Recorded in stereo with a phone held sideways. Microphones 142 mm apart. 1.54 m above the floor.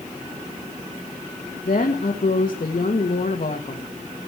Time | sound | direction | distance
1.6 | a woman speaking | 75° left (ahead or behind) | 1.8 m